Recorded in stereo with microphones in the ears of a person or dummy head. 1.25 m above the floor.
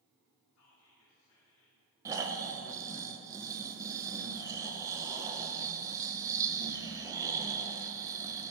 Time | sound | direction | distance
0.6 | whispering | 70° left (ahead or behind) | 2.5 m
2.0 | snoring | 20° right (ahead or behind) | 0.7 m